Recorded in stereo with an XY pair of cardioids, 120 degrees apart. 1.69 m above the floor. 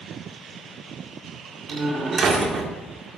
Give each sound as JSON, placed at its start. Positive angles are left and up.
{"t": 1.7, "sound": "a door slam", "azimuth_deg": -40, "distance_m": 1.9}